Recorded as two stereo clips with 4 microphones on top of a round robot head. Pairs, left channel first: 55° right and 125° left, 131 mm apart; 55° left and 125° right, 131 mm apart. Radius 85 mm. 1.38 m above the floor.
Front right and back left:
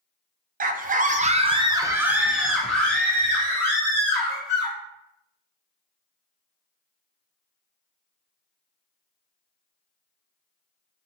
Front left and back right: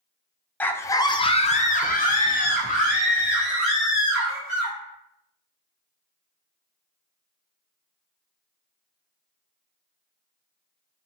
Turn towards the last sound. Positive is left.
turn(degrees=15)